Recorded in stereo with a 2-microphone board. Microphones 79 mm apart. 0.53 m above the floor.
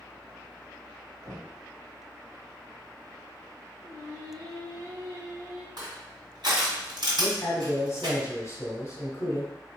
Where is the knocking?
70° right (ahead or behind), 1.3 m.